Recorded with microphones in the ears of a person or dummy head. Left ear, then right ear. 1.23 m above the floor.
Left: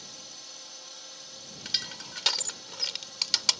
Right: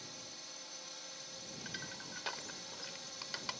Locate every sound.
0.0 s a drone: centre (ahead or behind); by 3.6 s 5° right (ahead or behind)
1.6 s crushing: 75° left (ahead or behind)